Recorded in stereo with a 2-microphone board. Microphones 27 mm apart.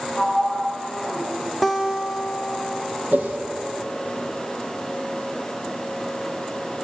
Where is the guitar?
Centre (ahead or behind), 1.0 m.